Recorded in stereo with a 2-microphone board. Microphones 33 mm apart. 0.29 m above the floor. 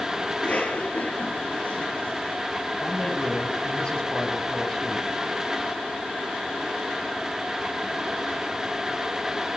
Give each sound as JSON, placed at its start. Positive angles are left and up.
{"t": 0.3, "sound": "a cough", "side_deg": 40, "distance_m": 2.0}
{"t": 2.8, "sound": "a man speaking", "side_deg": 25, "distance_m": 2.5}